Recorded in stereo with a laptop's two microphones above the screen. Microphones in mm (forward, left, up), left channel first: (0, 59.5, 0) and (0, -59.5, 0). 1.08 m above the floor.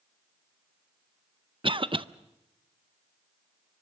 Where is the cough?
45° right (ahead or behind), 0.5 m.